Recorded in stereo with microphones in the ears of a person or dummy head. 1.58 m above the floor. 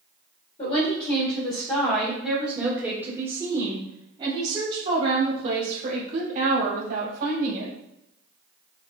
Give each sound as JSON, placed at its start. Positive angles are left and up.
{"t": 0.6, "sound": "a woman speaking", "side_deg": 35, "distance_m": 1.7}